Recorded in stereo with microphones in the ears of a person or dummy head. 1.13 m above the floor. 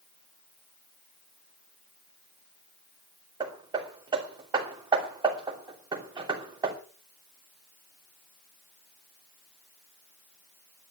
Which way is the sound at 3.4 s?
20° right (ahead or behind).